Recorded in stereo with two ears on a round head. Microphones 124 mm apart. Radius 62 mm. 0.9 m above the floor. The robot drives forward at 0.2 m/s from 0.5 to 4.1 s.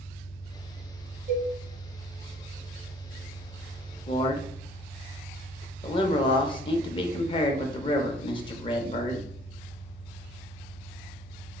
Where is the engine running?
60° right (ahead or behind), 0.8 m; by 11.6 s 50° right (ahead or behind), 0.9 m.